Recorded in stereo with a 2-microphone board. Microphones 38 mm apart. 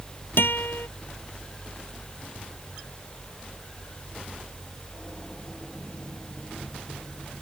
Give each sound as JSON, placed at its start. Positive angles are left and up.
{"t": 0.4, "sound": "a guitar", "side_deg": 70}